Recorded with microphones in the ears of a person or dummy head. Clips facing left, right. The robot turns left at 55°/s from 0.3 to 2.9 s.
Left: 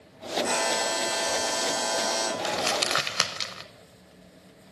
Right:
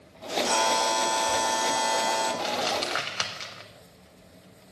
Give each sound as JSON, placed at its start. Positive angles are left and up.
{"t": 0.4, "sound": "a buzzer", "azimuth_deg": 160, "distance_m": 6.5}
{"t": 2.4, "sound": "crumpling", "side_deg": 20, "distance_m": 0.7}